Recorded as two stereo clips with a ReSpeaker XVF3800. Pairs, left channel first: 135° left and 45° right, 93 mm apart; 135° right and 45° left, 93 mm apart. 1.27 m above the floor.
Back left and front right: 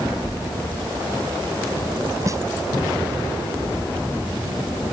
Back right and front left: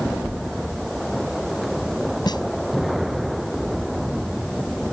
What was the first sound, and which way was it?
A snare drum, 95° right.